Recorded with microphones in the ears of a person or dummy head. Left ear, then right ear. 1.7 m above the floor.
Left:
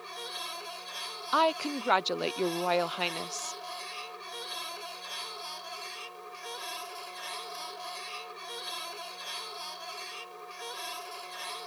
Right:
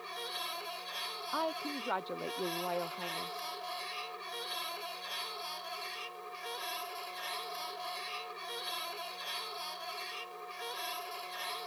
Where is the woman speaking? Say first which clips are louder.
Left 10 dB; 75° left (ahead or behind).